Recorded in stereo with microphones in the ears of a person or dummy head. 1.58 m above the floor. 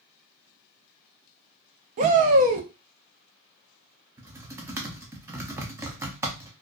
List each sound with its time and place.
2.0 s a shout: 35° right (ahead or behind), 0.5 m
4.2 s typing on a keyboard: 10° right (ahead or behind), 0.5 m